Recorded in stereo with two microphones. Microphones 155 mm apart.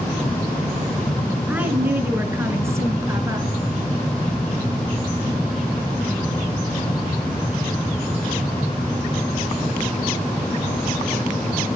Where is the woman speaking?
10° right (ahead or behind), 4 m; by 3.5 s 20° right (ahead or behind), 5.5 m.